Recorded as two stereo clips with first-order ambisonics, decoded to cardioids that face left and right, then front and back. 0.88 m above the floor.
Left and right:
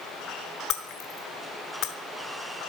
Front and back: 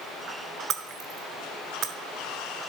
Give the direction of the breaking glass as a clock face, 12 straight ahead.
8 o'clock.